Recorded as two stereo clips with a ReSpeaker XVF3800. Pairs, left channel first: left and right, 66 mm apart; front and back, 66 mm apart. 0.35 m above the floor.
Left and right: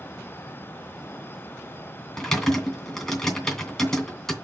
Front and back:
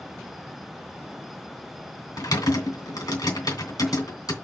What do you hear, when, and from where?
2.2 s typing on a keyboard: 5° left, 2.5 m